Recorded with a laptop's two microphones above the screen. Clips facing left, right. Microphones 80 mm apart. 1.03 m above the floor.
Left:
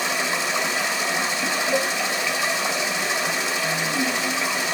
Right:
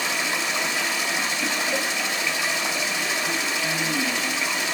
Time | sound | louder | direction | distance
0.0 | running water | left 2 dB | 5° left (ahead or behind) | 1.4 m
1.7 | dishes clattering | left 4 dB | 5° right (ahead or behind) | 1.8 m